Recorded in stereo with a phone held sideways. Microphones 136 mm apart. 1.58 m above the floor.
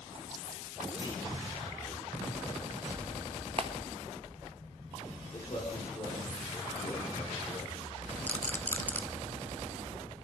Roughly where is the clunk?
Left.